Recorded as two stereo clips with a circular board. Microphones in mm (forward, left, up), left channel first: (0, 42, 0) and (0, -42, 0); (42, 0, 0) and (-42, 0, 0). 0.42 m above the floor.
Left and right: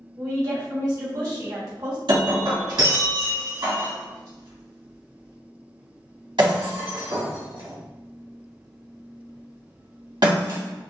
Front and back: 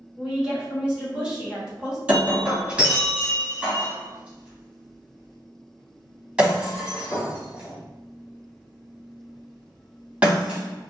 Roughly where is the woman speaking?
Right.